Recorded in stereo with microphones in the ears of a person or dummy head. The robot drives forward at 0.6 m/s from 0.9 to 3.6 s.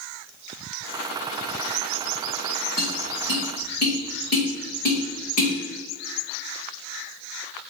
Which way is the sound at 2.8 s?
55° left (ahead or behind).